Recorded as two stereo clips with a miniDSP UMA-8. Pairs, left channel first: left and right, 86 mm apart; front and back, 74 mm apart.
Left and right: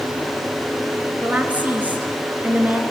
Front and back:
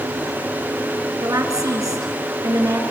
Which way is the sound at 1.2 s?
160° right.